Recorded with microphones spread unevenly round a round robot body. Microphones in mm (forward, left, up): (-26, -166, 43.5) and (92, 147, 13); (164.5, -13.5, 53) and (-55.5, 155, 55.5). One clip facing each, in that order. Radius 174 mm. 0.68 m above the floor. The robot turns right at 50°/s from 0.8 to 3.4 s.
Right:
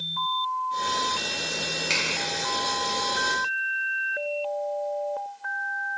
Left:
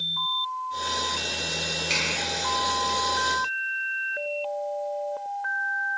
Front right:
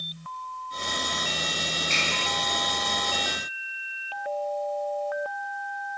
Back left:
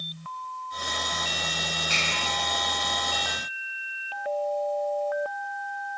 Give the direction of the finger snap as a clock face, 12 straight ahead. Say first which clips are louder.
Even, front right 2 dB; 5 o'clock.